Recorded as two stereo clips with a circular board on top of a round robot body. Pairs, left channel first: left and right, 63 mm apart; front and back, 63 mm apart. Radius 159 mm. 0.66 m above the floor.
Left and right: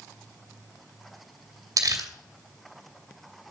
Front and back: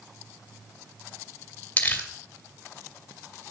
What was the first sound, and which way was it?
Crumpling, 65° right.